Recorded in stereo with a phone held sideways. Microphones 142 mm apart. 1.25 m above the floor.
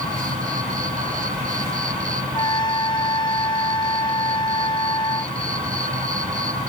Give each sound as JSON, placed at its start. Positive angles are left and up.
{"t": 0.0, "sound": "an insect", "side_deg": -75}
{"t": 2.3, "sound": "a trumpet", "side_deg": 30}